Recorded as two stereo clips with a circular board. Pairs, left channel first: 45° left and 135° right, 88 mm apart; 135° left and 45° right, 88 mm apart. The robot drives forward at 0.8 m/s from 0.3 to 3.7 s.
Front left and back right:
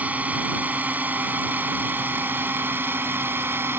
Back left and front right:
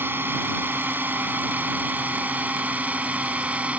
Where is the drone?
80° right; by 3.8 s 105° right.